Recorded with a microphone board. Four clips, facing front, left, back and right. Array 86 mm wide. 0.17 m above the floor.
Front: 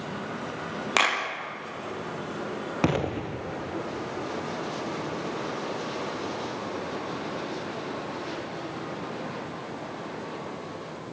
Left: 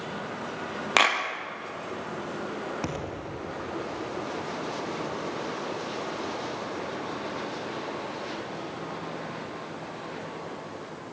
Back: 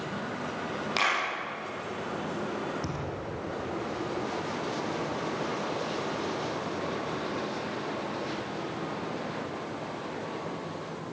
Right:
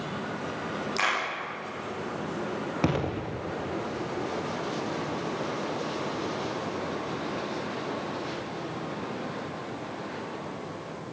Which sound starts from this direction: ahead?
An explosion, at 2.8 s.